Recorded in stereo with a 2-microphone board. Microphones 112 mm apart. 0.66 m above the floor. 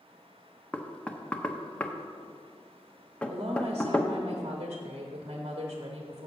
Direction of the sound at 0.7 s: 10° left (ahead or behind).